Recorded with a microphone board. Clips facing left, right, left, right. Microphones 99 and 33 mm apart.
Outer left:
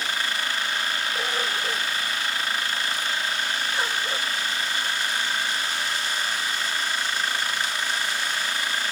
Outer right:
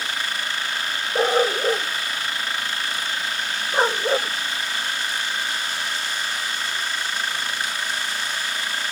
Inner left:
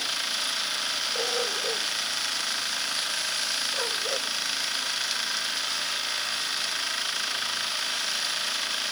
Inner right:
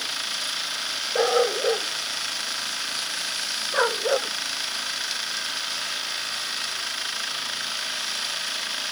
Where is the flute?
I don't hear a flute.